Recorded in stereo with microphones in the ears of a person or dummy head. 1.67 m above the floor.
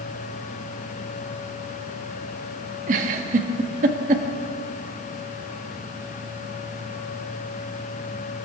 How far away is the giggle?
About 1.6 m.